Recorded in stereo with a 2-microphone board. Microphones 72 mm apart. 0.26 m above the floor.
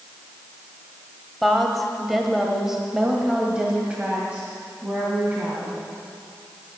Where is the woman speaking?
Centre (ahead or behind), 1.6 m; by 5.8 s 20° right (ahead or behind), 2.5 m.